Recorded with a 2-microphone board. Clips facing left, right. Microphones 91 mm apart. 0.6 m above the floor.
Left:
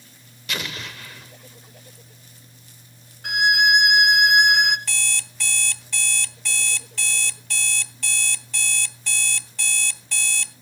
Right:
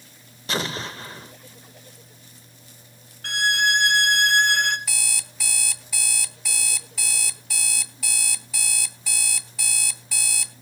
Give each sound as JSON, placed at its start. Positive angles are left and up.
{"t": 0.5, "sound": "an explosion", "side_deg": -35, "distance_m": 0.7}
{"t": 3.2, "sound": "a violin", "side_deg": 15, "distance_m": 0.9}
{"t": 4.9, "sound": "an alarm clock", "side_deg": -5, "distance_m": 0.7}